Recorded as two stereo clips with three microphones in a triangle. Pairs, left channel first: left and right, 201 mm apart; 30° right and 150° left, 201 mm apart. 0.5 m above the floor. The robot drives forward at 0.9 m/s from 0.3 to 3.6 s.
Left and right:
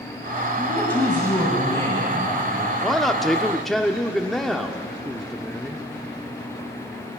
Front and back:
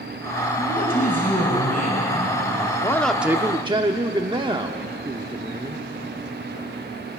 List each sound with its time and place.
0.6 s a man speaking: 10° left, 4.5 m; by 2.7 s 20° left, 2.5 m
2.8 s a man speaking: 5° left, 0.9 m; by 5.9 s 175° left, 0.9 m